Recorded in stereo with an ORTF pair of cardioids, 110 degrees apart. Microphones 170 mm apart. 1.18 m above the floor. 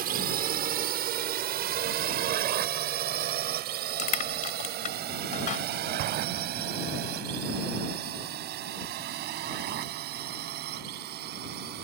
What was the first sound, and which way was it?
A drone, 65° right.